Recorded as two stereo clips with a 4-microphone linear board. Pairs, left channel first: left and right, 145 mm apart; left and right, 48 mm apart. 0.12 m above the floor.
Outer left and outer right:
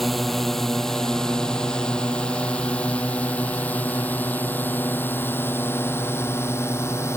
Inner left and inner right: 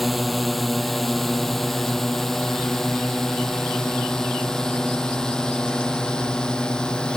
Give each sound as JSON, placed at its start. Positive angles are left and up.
{"t": 0.0, "sound": "a drone", "side_deg": 0}